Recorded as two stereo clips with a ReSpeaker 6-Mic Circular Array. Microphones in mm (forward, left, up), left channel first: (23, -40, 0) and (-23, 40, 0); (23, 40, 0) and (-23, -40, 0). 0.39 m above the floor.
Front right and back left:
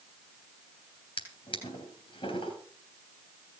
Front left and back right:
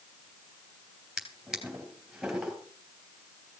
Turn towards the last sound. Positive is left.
turn(degrees=-35)